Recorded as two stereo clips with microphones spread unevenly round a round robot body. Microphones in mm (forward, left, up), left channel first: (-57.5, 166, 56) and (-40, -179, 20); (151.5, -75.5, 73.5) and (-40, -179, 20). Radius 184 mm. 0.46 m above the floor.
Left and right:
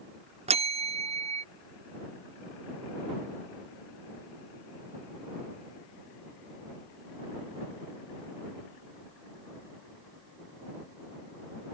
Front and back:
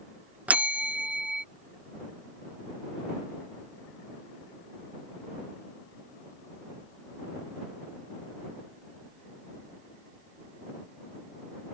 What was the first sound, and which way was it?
A bell, 110° right.